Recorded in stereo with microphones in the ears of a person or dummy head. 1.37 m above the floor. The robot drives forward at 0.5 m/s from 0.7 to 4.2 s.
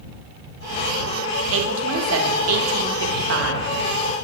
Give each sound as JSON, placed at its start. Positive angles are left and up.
{"t": 1.5, "sound": "a woman speaking", "side_deg": -75, "distance_m": 1.7}